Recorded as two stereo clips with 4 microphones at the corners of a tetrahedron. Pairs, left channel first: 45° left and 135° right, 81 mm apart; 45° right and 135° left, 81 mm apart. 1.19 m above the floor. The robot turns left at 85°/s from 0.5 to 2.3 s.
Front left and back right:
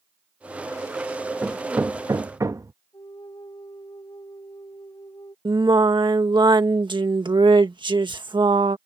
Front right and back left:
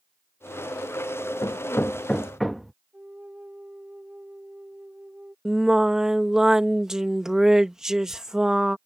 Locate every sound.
1.4 s hammering: 60° right; by 2.7 s 135° right
2.9 s a flute: 65° left
5.5 s singing: 140° right